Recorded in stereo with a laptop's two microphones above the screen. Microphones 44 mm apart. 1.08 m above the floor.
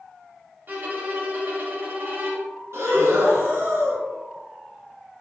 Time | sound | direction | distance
0.7 | a violin | 40° right (ahead or behind) | 0.7 m
2.7 | breathing | 75° right (ahead or behind) | 1.2 m